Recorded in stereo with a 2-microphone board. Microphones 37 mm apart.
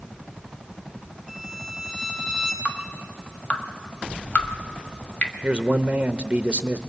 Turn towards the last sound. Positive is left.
turn(degrees=-25)  # may be behind; listen again after turning